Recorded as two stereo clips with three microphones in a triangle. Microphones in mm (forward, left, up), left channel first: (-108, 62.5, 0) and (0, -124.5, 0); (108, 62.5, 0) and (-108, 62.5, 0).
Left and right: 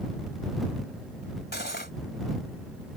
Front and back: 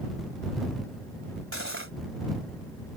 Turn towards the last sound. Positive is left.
turn(degrees=160)